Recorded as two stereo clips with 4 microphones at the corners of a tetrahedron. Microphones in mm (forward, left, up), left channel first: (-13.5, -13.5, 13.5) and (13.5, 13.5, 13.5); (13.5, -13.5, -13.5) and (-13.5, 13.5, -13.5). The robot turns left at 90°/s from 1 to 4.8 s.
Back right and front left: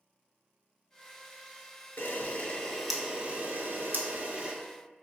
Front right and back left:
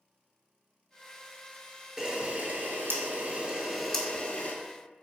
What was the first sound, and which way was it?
A camera shutter, 150° right.